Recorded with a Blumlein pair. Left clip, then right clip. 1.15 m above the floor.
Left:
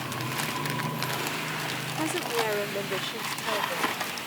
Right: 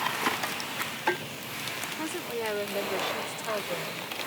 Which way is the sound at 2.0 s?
15° left.